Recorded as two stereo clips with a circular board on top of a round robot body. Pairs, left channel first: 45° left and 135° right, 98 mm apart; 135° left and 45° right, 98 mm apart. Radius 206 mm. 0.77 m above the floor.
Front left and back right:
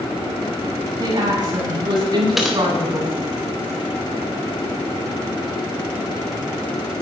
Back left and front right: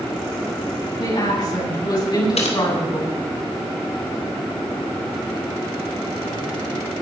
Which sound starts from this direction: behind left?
Typing on a keyboard, at 2.4 s.